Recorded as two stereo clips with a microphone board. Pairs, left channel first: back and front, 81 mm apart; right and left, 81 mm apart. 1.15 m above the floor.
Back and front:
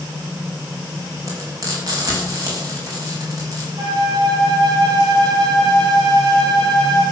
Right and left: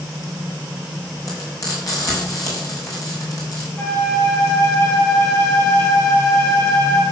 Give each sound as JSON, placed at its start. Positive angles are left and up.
{"t": 1.3, "sound": "frying", "azimuth_deg": -45, "distance_m": 5.5}
{"t": 3.8, "sound": "a flute", "azimuth_deg": -35, "distance_m": 7.5}